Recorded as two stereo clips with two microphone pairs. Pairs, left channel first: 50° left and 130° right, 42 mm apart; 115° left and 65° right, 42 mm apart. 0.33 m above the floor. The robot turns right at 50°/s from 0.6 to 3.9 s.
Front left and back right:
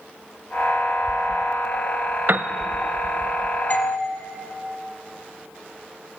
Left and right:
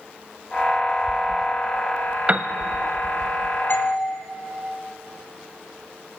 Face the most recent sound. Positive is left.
turn(degrees=100)